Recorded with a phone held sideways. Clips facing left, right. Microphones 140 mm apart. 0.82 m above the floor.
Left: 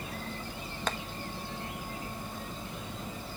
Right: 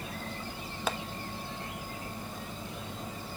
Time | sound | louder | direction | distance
0.9 | tapping | right 1 dB | 5° right (ahead or behind) | 1.0 m